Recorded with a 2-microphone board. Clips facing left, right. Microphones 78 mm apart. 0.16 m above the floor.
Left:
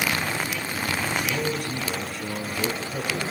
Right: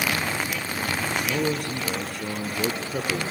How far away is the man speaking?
About 2.5 m.